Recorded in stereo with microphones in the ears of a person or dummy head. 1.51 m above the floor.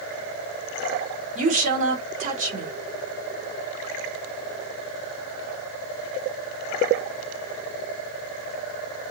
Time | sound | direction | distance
1.4 | a woman speaking | 45° right (ahead or behind) | 1.0 m